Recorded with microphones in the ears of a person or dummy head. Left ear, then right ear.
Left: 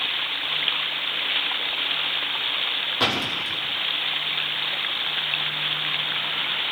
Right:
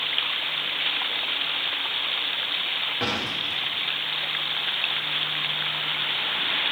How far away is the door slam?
About 3 m.